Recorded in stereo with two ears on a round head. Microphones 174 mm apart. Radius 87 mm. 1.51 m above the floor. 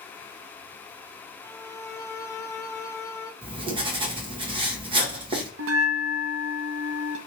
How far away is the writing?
About 1.2 m.